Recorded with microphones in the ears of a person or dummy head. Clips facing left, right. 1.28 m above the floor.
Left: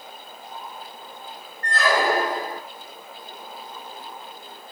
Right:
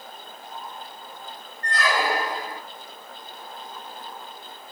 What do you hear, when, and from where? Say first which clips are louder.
1.6 s a squeak: left 3 dB; 35° left (ahead or behind), 0.5 m